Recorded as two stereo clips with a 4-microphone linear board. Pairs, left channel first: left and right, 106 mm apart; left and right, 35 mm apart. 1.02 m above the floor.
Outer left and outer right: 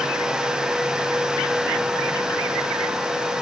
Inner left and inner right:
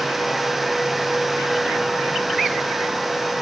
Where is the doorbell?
I don't hear a doorbell.